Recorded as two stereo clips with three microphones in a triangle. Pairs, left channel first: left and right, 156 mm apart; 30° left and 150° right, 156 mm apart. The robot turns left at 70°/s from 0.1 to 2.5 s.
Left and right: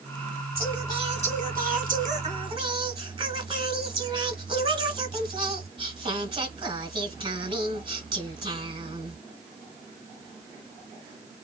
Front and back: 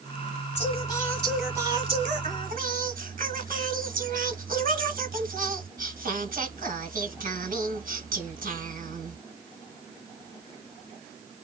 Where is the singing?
5° right, 2.5 m; by 9.2 s 145° right, 2.5 m.